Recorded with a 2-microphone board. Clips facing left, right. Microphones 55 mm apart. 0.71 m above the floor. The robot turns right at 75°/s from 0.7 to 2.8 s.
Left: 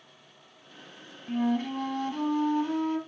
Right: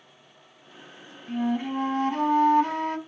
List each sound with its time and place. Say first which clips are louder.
1.3 s a flute: right 1 dB; straight behind, 0.8 m; by 3.0 s 65° right, 0.8 m